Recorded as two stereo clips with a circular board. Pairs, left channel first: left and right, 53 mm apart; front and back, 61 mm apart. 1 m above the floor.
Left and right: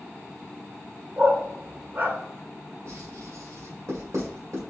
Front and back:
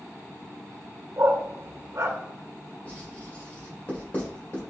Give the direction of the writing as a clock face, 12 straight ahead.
2 o'clock.